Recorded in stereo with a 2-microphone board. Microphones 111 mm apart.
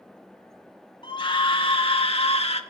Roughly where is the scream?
Left.